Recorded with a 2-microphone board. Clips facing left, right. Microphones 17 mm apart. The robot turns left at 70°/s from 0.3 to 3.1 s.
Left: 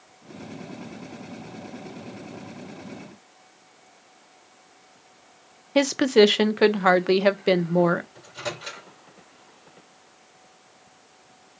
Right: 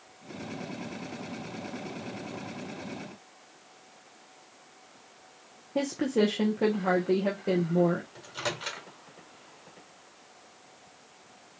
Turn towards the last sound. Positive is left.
turn(degrees=-30)  # may be behind; listen again after turning